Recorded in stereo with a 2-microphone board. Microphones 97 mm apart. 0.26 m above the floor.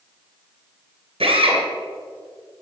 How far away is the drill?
About 2.5 m.